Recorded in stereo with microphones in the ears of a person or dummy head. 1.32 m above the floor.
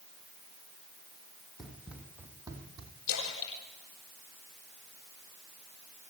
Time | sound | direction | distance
1.6 | running footsteps | 5° right (ahead or behind) | 3 m
3.1 | a splash | 75° left (ahead or behind) | 6 m